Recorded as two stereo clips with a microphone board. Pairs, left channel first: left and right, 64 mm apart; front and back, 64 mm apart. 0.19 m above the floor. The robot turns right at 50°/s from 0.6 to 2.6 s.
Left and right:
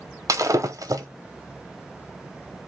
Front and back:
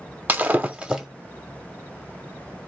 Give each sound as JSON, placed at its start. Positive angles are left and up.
{"t": 0.3, "sound": "breaking glass", "azimuth_deg": -115, "distance_m": 0.6}